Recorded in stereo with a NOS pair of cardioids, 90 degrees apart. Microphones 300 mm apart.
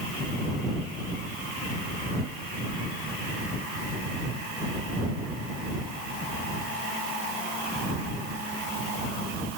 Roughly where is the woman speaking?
No woman speaking in this recording.